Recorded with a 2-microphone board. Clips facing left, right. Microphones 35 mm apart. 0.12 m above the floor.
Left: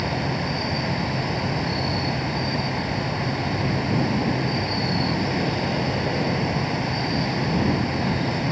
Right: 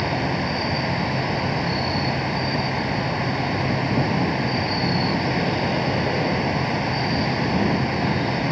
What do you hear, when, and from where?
0.0 s an insect: 15° right (ahead or behind)